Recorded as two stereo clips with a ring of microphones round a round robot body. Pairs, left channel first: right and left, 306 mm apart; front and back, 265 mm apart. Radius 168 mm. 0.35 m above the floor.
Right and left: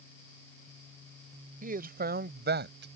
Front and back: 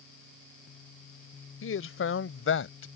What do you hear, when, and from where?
1.6 s a man speaking: 30° left; by 2.9 s 35° left